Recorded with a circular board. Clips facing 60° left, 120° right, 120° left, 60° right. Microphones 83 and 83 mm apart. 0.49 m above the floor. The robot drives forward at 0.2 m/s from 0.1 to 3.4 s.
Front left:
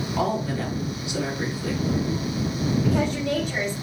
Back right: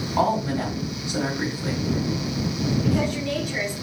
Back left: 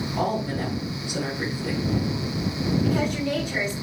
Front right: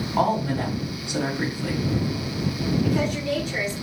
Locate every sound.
0.2 s a woman speaking: 65° right, 2 m; by 1.8 s 70° right, 2 m
2.8 s a woman speaking: 55° left, 1.3 m; by 3.9 s 65° left, 1.3 m